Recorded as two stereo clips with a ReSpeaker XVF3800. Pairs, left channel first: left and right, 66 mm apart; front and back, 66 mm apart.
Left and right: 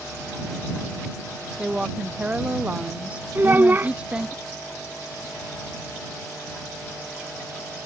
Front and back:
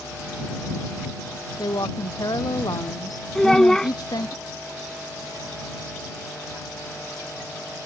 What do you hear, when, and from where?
1.6 s a woman speaking: 15° right
3.4 s a child speaking: 75° right